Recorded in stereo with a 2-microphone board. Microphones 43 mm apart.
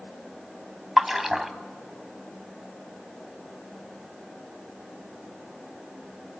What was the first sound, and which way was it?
A splash, 10° right (ahead or behind).